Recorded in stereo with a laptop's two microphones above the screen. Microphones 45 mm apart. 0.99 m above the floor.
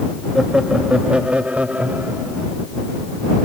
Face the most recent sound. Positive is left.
turn(degrees=-35)  # may be behind; listen again after turning